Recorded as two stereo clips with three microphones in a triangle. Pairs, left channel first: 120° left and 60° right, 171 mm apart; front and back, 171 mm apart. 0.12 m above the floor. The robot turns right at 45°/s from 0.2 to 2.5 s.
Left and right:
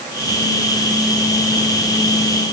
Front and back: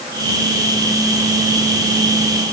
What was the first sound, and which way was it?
Only background noise.